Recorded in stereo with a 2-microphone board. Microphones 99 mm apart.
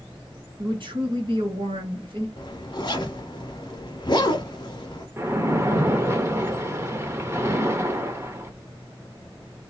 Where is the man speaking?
60° right (ahead or behind), 2 m.